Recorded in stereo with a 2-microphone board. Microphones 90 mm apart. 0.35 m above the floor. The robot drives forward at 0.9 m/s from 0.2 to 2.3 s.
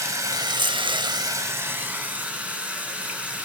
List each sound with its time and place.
0.0 s running water: 35° right (ahead or behind), 0.7 m; by 3.5 s 15° right (ahead or behind), 1.4 m